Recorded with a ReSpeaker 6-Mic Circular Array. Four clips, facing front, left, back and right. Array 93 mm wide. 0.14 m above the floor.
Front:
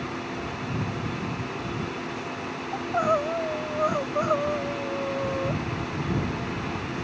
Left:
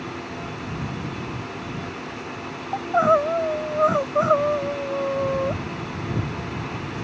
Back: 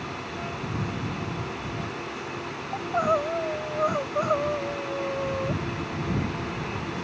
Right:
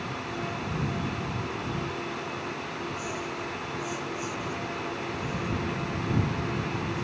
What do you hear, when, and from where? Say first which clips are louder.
2.7 s crying: left 15 dB, even; 90° left